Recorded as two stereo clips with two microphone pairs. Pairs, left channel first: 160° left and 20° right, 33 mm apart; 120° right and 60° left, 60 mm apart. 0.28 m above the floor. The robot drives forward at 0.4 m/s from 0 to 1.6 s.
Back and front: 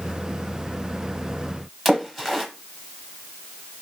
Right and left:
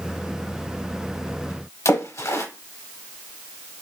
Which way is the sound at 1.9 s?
115° right.